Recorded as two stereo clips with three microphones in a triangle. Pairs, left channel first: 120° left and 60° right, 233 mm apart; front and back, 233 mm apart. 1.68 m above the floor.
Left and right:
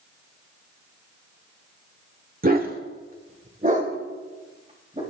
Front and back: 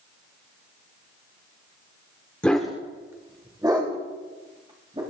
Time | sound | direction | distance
2.4 | a dog barking | 80° right | 1.6 m